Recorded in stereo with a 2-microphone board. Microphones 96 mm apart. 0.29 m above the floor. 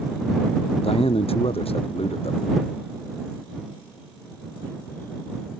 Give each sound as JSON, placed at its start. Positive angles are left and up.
{"t": 0.8, "sound": "a man speaking", "side_deg": 80}